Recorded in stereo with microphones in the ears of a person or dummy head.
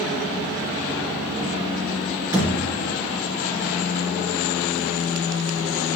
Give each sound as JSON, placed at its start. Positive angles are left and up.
{"t": 2.3, "sound": "a thud", "side_deg": -15, "distance_m": 2.5}